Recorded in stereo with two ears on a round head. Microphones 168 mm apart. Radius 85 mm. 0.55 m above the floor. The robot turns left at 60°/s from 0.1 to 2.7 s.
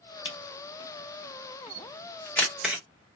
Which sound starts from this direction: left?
A camera shutter, at 0.2 s.